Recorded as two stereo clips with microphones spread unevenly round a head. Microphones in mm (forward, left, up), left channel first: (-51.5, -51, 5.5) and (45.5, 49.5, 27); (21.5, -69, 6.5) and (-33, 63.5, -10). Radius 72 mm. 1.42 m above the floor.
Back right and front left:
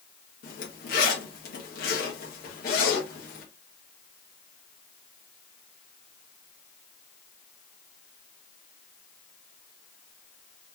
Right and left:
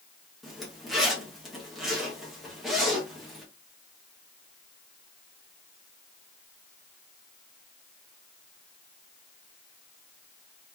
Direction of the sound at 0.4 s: 155° right.